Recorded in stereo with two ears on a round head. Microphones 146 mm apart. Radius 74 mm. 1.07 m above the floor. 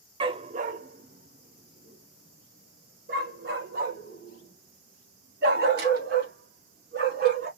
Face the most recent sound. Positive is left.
turn(degrees=-70)  # may be behind; listen again after turning